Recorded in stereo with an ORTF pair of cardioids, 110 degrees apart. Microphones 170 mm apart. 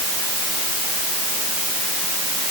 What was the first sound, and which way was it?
Only background noise.